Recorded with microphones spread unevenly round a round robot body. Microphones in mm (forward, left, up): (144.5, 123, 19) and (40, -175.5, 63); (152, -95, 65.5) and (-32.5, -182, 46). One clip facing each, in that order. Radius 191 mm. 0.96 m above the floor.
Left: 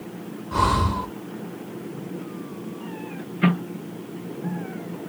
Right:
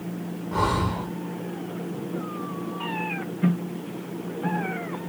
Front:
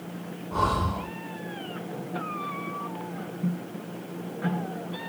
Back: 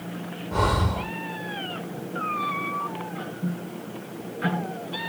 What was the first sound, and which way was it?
Breathing, 125° left.